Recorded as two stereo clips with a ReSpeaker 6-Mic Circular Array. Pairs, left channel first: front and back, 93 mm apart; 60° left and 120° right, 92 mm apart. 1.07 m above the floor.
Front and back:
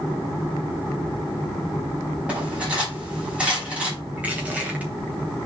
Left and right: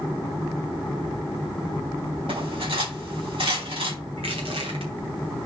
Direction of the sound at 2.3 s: 100° right.